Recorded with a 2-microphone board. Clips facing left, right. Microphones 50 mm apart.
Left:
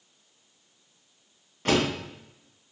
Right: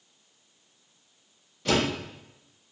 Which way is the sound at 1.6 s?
50° left (ahead or behind).